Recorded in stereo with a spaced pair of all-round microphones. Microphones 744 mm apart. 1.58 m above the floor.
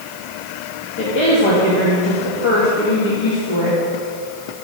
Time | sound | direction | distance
1.0 | a woman speaking | 40° left (ahead or behind) | 2.5 m